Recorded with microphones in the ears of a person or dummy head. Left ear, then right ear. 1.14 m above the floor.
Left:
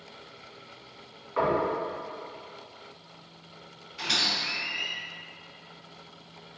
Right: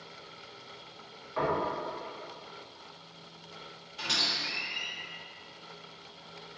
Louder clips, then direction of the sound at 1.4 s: Left 4 dB; 10° left (ahead or behind).